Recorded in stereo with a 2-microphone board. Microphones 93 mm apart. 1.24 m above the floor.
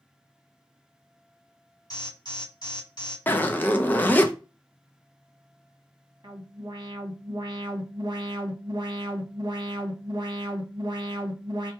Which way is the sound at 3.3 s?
20° left (ahead or behind).